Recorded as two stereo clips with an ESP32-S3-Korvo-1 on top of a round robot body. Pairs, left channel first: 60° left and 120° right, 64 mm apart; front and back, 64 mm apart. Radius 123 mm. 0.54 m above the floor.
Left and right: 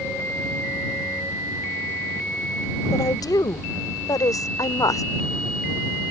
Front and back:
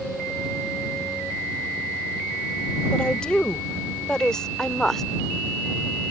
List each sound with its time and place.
2.9 s a woman speaking: 75° left; by 5.0 s 85° left